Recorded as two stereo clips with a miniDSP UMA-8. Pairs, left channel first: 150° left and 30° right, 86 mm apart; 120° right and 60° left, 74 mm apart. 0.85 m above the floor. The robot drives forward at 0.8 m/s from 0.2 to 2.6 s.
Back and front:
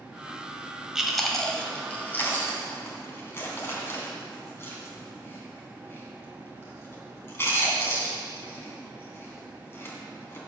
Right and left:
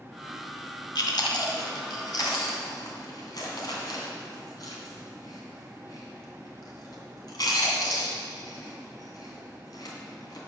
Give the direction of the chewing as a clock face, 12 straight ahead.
4 o'clock.